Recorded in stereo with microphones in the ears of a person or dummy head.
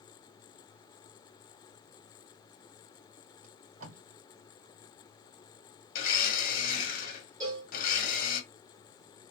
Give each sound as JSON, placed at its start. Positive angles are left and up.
{"t": 3.4, "sound": "tape being pulled", "side_deg": -45, "distance_m": 2.0}
{"t": 6.0, "sound": "a blender", "side_deg": 45, "distance_m": 1.3}
{"t": 7.4, "sound": "a cowbell", "side_deg": -20, "distance_m": 1.4}